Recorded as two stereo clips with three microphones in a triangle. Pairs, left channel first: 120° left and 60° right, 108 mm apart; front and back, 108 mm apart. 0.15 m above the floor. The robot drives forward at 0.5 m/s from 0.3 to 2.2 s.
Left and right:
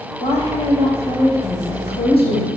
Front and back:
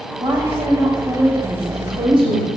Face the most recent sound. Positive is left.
turn(degrees=145)